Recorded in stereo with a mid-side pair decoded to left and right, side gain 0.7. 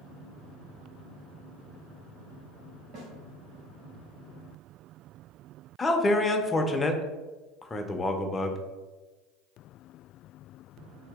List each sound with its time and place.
2.9 s a snare drum: 50° right, 1.4 m
5.8 s a man speaking: 20° left, 0.5 m